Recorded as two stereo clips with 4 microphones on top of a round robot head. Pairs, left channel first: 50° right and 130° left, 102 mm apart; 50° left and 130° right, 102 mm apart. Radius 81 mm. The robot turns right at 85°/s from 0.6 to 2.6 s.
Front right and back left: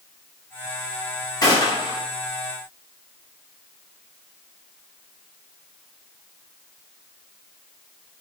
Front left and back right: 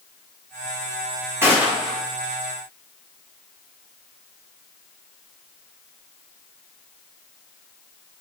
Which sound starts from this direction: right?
A gunshot, at 1.4 s.